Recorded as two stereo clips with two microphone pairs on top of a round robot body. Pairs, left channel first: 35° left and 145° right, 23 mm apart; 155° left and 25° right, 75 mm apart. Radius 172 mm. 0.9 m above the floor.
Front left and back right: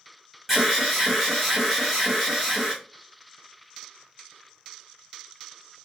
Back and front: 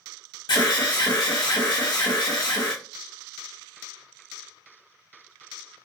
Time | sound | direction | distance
0.5 | an alarm | 135° left | 1.0 m